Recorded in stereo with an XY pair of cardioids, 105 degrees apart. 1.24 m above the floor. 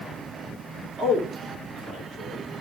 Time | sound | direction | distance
1.0 | a man speaking | 55° right | 2 m